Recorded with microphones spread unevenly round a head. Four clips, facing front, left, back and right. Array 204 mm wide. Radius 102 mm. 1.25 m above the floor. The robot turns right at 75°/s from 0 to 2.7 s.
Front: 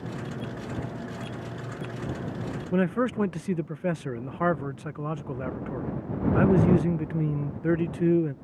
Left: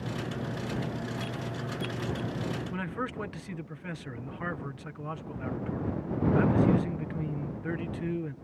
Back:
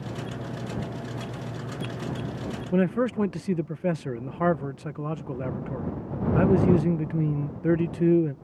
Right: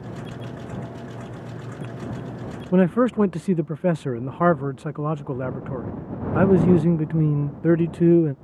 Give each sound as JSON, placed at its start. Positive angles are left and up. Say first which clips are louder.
{"t": 2.7, "sound": "a man speaking", "louder": "right 16 dB, back 1 dB", "azimuth_deg": -95}